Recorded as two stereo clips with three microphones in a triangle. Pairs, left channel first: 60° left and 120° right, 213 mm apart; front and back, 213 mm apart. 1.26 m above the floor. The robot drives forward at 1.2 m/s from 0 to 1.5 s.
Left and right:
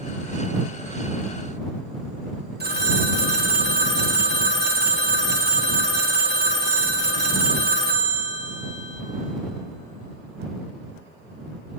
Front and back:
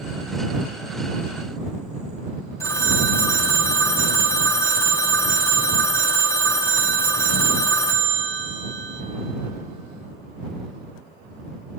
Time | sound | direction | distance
2.6 | a phone ringing | 75° right | 1.6 m